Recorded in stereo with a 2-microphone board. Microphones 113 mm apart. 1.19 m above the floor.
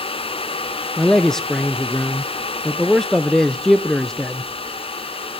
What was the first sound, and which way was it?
A man speaking, 5° left (ahead or behind).